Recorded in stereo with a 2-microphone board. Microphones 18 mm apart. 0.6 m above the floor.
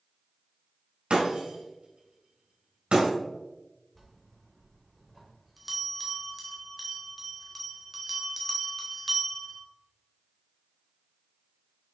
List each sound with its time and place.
1.1 s breaking glass: 85° right, 2.5 m
4.0 s a bell: 5° right (ahead or behind), 1.6 m